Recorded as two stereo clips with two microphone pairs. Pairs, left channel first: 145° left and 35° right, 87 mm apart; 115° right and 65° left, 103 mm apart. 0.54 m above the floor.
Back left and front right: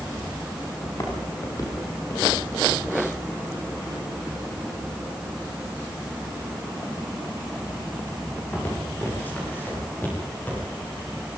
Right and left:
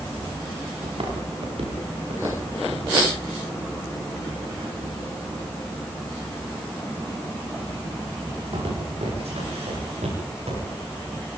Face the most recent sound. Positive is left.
turn(degrees=70)